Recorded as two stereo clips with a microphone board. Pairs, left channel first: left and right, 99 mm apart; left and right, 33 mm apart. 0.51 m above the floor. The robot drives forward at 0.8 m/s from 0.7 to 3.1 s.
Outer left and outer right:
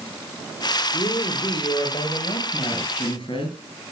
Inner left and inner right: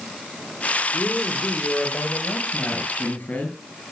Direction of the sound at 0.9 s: 60° left (ahead or behind).